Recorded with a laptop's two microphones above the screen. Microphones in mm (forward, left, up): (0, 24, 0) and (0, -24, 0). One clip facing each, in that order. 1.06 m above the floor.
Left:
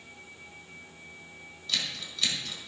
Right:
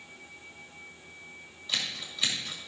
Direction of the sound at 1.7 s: 15° right (ahead or behind).